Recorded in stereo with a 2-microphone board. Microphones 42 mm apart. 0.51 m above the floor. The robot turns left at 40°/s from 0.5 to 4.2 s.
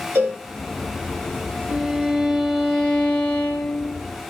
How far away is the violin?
About 0.9 m.